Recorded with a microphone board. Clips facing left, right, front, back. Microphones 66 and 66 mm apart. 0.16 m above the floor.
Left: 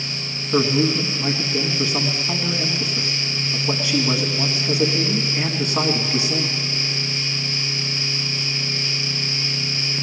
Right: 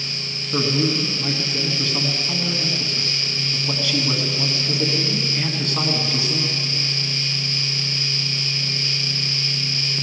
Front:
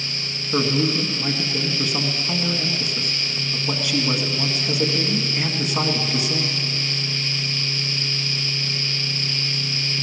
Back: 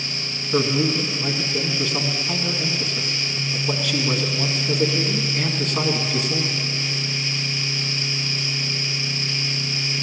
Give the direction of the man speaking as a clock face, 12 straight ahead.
10 o'clock.